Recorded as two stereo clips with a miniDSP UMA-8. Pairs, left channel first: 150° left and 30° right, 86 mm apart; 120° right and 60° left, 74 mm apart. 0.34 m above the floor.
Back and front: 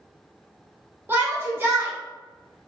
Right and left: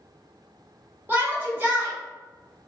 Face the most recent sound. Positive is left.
turn(degrees=20)